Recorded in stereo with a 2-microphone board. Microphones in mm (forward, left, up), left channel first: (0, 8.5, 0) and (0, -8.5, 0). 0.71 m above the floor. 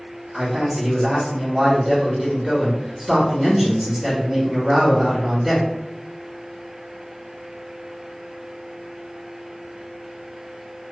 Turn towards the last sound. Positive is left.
turn(degrees=-25)  # may be behind; listen again after turning